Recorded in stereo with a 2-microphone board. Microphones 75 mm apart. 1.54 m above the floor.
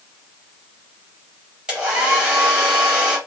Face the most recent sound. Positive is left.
turn(degrees=-10)  # may be behind; listen again after turning